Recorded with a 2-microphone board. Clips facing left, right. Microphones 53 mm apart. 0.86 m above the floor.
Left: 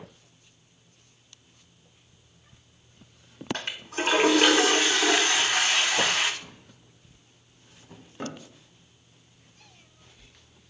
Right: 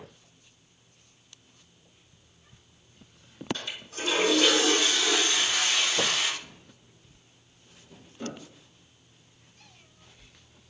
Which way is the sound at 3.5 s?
55° left (ahead or behind).